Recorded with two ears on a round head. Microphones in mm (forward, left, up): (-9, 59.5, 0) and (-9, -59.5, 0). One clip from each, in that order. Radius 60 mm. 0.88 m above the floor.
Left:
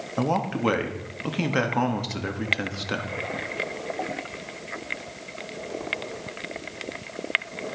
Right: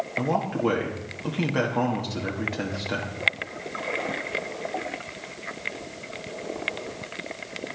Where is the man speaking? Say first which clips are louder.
Left 1 dB; 45° left (ahead or behind), 1.5 m.